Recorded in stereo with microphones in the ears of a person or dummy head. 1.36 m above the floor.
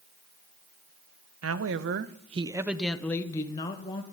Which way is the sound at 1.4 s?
75° right (ahead or behind).